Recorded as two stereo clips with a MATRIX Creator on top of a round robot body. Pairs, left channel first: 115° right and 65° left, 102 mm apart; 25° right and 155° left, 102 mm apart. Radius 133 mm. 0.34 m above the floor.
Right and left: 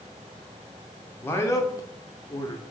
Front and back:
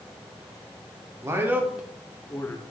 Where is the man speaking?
165° right, 1.1 m; by 2.6 s 75° right, 1.2 m.